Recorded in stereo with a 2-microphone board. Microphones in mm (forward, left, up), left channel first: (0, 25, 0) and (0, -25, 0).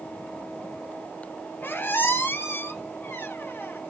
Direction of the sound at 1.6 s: 40° left (ahead or behind).